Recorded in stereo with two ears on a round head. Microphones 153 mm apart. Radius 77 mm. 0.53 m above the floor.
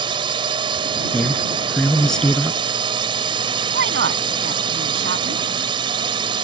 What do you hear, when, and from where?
0.0 s a drone: 30° right (ahead or behind)
1.1 s a man speaking: 5° left (ahead or behind)
3.7 s a woman speaking: 70° right (ahead or behind)